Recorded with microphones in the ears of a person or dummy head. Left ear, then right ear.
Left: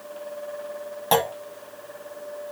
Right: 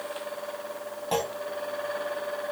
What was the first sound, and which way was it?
A clunk, 60° left (ahead or behind).